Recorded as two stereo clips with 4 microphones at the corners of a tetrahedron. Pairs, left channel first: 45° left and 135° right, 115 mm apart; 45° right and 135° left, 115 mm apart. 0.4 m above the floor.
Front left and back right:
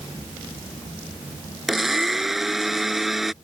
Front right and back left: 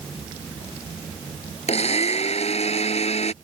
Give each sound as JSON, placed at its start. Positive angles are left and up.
{"t": 1.7, "sound": "a blender", "azimuth_deg": -45}